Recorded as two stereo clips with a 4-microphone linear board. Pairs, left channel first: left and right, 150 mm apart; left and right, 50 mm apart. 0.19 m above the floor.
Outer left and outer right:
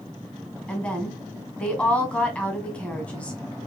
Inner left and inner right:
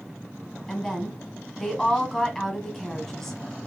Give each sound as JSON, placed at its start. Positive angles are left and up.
{"t": 0.7, "sound": "a woman speaking", "side_deg": 5, "distance_m": 1.3}